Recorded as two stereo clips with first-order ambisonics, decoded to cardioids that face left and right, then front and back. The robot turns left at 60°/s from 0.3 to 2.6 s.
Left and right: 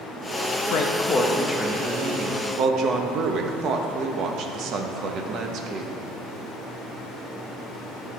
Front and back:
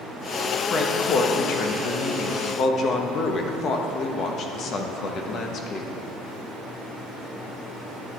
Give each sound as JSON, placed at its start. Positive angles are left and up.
{"t": 0.7, "sound": "a woman speaking", "azimuth_deg": 65, "distance_m": 0.9}